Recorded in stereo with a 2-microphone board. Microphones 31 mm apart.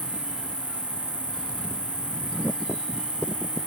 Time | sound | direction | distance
0.0 | an insect | 55° left (ahead or behind) | 1.1 m